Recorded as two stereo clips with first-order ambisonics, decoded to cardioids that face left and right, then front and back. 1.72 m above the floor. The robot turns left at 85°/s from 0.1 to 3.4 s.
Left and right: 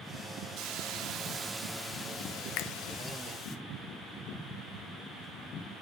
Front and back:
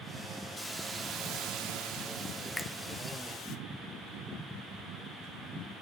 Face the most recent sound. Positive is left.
turn(degrees=10)